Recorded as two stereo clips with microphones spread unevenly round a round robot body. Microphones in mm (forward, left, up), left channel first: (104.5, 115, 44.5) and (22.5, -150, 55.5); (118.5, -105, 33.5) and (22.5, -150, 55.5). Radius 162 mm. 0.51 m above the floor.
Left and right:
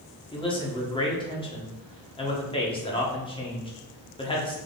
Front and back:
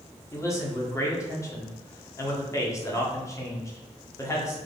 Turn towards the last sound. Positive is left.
turn(degrees=15)